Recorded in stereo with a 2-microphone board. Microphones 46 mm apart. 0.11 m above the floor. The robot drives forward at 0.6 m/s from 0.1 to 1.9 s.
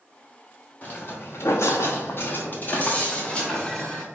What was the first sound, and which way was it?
Footsteps, 40° left (ahead or behind).